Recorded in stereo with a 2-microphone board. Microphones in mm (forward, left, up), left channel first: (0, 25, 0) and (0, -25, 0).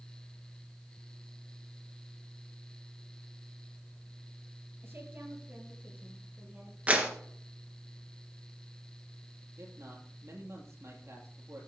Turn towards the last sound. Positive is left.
turn(degrees=-65)  # may be behind; listen again after turning